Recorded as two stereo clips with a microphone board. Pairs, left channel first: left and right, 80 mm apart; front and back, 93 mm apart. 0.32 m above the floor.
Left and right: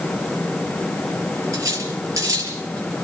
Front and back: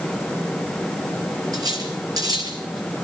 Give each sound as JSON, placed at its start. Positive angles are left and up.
{"t": 1.5, "sound": "cutlery clinking", "azimuth_deg": -135, "distance_m": 4.5}